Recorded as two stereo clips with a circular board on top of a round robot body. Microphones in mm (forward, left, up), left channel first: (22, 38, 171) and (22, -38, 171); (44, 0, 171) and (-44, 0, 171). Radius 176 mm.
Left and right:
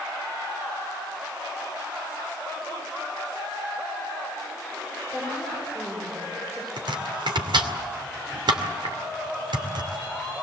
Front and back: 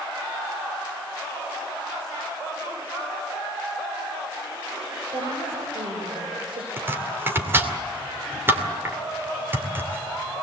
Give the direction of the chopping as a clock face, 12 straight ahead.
4 o'clock.